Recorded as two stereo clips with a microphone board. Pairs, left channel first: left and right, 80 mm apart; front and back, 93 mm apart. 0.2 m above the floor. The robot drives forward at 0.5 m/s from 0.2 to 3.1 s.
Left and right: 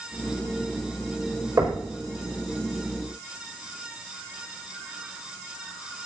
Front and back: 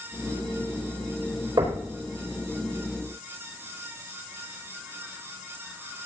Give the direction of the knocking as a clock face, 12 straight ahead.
5 o'clock.